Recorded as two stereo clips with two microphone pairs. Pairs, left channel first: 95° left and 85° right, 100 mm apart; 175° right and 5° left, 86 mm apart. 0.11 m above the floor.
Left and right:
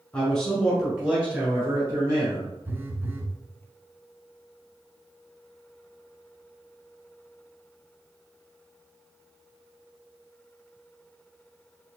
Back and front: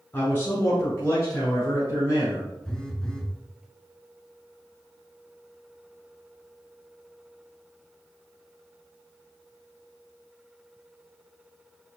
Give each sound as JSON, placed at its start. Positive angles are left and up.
{"t": 0.1, "sound": "a man speaking", "azimuth_deg": 170, "distance_m": 1.6}
{"t": 2.6, "sound": "a phone buzzing", "azimuth_deg": -105, "distance_m": 0.6}